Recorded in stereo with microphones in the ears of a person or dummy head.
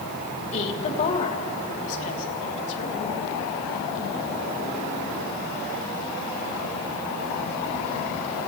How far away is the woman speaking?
About 3.5 m.